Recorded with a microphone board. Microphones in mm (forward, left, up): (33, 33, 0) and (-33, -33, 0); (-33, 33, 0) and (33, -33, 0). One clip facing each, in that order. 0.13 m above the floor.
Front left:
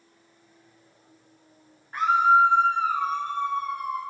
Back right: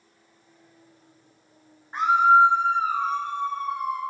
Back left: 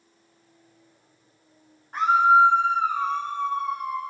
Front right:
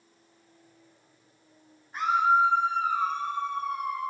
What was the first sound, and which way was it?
A scream, 160° left.